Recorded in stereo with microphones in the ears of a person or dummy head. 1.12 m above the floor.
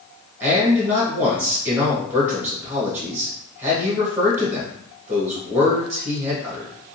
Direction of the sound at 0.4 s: 10° right (ahead or behind).